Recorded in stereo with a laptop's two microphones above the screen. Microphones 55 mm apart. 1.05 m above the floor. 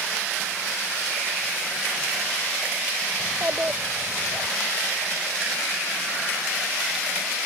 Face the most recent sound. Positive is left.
turn(degrees=-30)  # may be behind; listen again after turning